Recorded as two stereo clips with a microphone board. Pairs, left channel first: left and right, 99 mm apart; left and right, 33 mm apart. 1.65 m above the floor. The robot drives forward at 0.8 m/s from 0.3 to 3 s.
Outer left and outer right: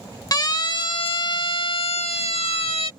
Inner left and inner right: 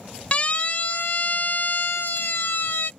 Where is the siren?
40° left (ahead or behind); by 2.9 s 75° left (ahead or behind).